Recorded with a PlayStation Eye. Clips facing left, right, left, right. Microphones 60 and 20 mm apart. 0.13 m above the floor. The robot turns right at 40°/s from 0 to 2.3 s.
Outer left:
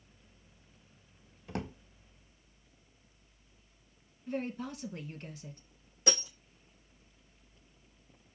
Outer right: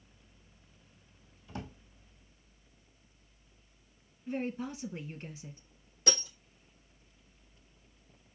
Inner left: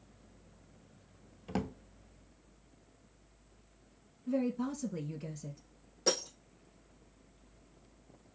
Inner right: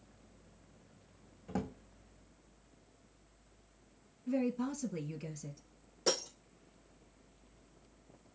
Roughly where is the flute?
I don't hear a flute.